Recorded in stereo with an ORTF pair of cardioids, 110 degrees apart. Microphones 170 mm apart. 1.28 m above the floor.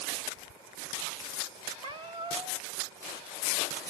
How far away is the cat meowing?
About 2.5 m.